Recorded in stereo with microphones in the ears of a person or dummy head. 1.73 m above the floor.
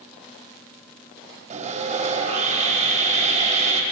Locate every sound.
1.5 s sawing: 45° right (ahead or behind), 4 m